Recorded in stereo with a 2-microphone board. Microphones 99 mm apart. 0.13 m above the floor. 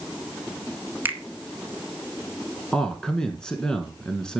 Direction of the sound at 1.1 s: 20° right (ahead or behind).